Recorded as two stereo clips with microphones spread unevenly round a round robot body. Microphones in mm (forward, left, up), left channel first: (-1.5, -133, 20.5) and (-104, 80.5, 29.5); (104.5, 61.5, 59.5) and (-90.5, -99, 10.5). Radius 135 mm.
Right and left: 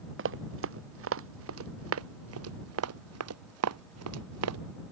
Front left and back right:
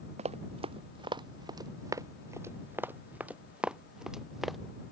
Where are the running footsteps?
150° left; by 4.6 s 130° left.